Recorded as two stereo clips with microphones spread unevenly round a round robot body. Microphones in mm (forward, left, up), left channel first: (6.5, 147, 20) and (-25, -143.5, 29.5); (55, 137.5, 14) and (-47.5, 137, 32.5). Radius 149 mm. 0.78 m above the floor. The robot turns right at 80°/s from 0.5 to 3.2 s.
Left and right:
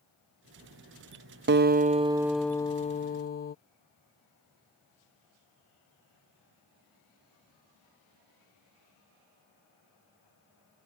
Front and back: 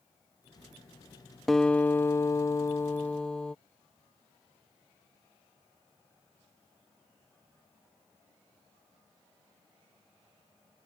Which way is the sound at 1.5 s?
75° right.